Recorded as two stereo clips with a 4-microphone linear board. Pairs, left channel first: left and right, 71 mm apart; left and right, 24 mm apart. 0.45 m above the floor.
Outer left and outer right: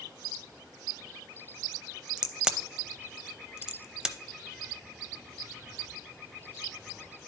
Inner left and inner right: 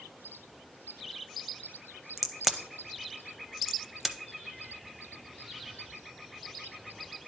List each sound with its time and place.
2.2 s a crack: 10° right (ahead or behind), 0.5 m